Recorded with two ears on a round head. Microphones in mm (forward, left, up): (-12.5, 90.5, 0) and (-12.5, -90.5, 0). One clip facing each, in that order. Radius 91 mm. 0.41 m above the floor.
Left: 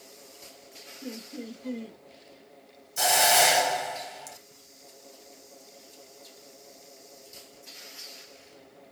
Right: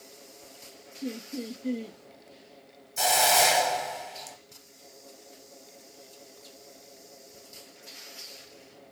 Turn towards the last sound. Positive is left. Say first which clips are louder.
# even
turn(degrees=5)  # may be behind; listen again after turning